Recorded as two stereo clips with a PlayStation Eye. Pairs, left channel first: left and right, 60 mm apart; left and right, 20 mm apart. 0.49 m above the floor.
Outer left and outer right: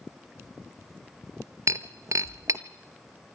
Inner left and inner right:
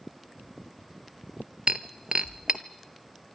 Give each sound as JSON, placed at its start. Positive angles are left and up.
{"t": 1.7, "sound": "breaking glass", "side_deg": -60, "distance_m": 0.9}